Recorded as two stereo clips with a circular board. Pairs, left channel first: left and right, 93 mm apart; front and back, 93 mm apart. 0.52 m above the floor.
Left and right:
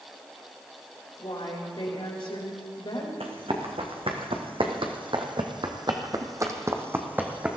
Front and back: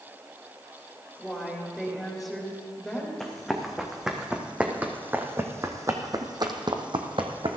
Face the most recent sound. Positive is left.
turn(degrees=-170)